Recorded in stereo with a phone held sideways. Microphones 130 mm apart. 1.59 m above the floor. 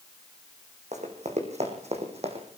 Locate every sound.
0.9 s running footsteps: 60° right (ahead or behind), 5 m; by 2.5 s 55° right (ahead or behind), 4 m